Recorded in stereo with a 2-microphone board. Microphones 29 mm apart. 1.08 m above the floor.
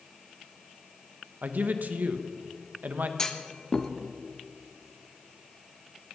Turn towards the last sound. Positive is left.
turn(degrees=20)  # may be behind; listen again after turning